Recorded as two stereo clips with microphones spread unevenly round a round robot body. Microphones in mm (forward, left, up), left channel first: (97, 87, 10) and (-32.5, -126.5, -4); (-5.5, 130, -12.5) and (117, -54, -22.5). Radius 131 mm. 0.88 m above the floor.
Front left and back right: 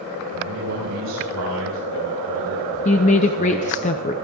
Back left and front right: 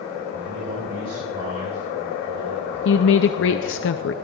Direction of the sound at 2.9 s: 115° left.